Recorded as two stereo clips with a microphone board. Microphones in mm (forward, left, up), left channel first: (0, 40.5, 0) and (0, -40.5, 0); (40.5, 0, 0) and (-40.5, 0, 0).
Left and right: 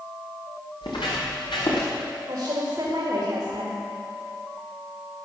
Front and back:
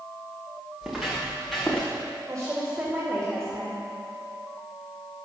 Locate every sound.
0.8 s footsteps: 100° left, 6.5 m; by 1.9 s 85° left, 6 m
2.3 s a woman speaking: 130° right, 3 m